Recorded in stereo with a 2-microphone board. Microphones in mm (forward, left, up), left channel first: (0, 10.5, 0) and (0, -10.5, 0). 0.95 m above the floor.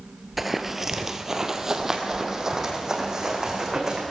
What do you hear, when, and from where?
0.4 s running footsteps: 10° right (ahead or behind), 0.9 m; by 4.0 s 25° right (ahead or behind), 3.5 m